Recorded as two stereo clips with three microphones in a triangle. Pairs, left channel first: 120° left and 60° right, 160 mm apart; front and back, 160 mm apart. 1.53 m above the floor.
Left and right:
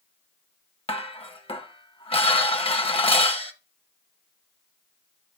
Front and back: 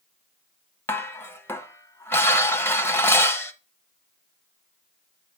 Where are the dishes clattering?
75° left, 0.9 m.